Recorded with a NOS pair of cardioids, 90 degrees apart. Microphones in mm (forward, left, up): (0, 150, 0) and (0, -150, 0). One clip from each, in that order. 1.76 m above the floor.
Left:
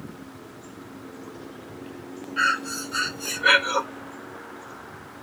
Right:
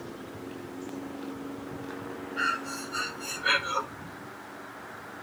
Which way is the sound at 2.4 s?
35° left.